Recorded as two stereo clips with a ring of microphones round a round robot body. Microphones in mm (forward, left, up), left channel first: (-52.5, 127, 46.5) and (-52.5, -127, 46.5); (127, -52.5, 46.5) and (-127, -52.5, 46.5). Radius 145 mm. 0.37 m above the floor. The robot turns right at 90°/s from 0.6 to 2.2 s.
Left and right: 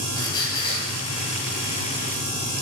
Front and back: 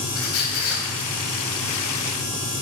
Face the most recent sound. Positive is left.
turn(degrees=160)